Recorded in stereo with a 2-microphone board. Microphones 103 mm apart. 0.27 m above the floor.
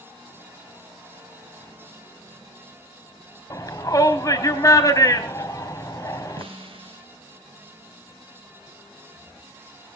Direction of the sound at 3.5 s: 35° left (ahead or behind).